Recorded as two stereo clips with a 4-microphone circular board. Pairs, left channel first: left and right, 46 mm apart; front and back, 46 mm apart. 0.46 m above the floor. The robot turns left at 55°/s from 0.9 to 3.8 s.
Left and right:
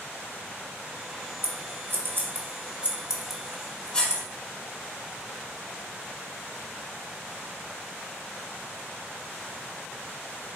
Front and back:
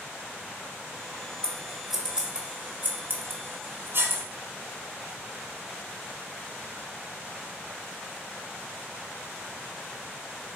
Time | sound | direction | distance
1.4 | scissors | 70° right | 0.8 m